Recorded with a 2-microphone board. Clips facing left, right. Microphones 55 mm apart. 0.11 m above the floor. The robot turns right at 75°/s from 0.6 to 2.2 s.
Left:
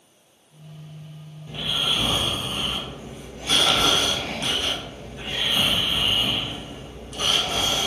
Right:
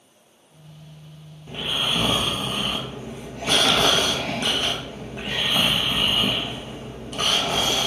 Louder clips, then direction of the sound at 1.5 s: Right 1 dB; 160° right.